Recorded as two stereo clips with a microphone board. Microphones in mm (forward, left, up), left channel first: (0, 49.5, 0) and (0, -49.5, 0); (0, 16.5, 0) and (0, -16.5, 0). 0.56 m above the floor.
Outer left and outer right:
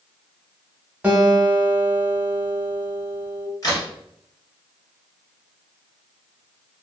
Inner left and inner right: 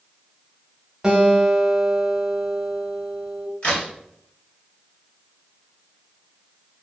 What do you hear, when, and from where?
1.0 s a guitar: 15° right (ahead or behind), 0.7 m
3.6 s a crack: 40° left (ahead or behind), 1.3 m